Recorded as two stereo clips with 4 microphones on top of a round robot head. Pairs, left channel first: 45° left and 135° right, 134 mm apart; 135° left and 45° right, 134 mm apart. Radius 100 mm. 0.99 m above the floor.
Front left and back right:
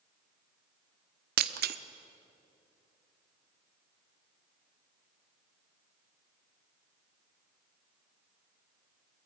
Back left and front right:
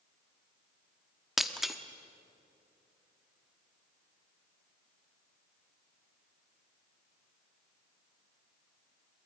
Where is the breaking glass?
135° right, 0.9 m.